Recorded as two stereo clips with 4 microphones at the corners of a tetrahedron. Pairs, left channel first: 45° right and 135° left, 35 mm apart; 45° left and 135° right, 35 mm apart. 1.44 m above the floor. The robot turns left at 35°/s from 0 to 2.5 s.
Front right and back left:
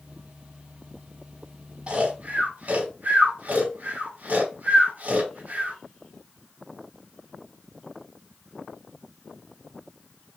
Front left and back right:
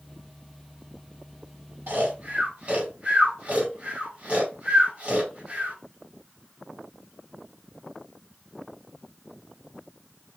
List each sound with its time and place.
1.9 s snoring: 170° right, 3 m; by 5.8 s 170° left, 3 m